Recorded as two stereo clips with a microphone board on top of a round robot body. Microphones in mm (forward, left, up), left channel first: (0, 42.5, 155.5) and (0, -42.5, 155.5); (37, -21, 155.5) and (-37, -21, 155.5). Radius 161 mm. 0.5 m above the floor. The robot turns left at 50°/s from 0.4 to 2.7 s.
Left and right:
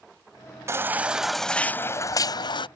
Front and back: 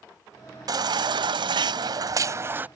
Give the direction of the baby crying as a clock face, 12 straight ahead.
5 o'clock.